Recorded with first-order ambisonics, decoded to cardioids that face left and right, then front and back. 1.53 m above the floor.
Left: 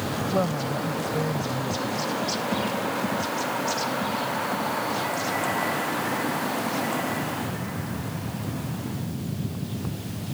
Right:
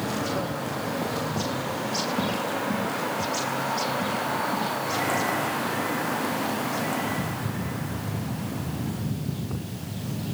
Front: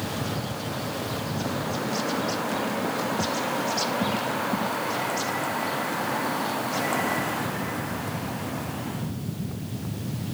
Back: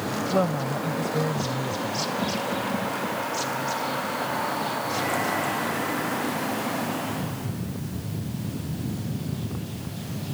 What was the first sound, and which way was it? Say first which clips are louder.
A woman speaking: left 3 dB, back 7 dB; 150° left.